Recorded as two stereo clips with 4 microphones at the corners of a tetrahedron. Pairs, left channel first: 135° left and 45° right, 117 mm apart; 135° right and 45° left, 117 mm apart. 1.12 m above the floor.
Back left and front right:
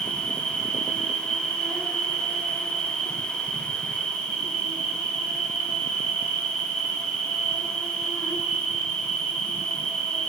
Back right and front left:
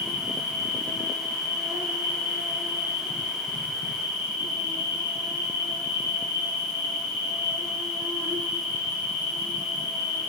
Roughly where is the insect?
Ahead left.